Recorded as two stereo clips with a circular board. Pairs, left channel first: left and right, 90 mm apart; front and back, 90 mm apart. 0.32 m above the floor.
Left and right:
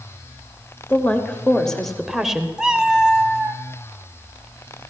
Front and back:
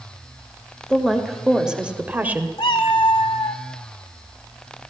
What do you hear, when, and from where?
0.9 s a woman speaking: 75° left, 1.2 m; by 2.5 s 155° right, 1.2 m
2.6 s a cat meowing: 10° right, 1.2 m